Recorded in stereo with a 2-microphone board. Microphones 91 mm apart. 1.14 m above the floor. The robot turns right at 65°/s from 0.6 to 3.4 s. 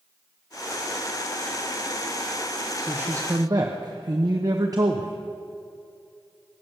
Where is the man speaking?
170° right, 0.9 m; by 5.2 s 130° right, 0.9 m.